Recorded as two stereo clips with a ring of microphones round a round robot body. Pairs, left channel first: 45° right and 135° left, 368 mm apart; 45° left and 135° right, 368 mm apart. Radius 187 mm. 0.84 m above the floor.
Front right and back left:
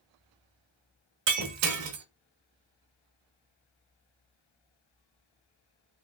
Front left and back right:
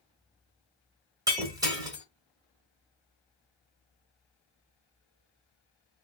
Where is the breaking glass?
150° left, 0.8 m.